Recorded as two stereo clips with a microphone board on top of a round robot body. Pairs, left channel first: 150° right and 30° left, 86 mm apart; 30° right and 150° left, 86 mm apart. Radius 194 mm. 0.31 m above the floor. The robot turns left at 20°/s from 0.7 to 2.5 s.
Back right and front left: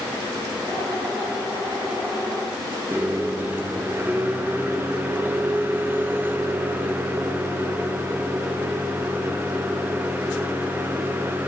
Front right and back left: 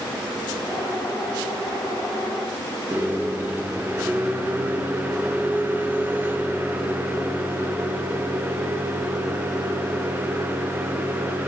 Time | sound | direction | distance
2.9 | a microwave | 90° left | 1.3 m